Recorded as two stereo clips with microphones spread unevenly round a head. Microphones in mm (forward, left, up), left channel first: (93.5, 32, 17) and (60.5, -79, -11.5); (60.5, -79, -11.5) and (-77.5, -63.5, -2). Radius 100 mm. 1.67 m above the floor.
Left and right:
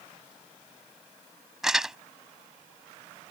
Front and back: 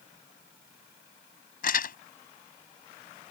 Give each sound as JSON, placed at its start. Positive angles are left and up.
{"t": 1.6, "sound": "crumpling", "azimuth_deg": -15}